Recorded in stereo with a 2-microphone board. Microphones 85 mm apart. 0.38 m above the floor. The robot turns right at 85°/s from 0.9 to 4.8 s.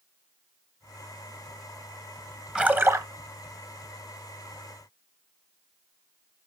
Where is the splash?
175° right, 0.9 m; by 3.1 s 130° right, 0.9 m.